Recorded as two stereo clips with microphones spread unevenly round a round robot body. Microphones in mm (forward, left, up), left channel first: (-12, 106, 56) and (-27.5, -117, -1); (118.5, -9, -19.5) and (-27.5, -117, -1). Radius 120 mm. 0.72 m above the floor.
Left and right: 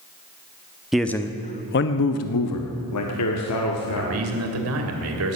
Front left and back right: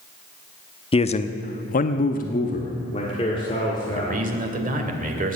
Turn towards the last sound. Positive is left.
turn(degrees=-100)